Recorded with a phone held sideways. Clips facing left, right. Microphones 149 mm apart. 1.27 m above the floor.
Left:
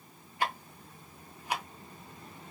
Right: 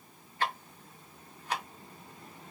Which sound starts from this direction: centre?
Ticking, at 0.4 s.